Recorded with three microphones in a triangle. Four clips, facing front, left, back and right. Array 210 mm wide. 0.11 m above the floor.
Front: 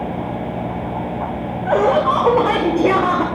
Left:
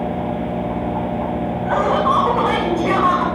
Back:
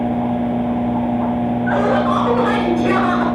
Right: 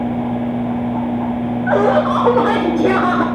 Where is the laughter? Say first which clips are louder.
Right 3 dB, front 3 dB; 40° right, 6.5 m.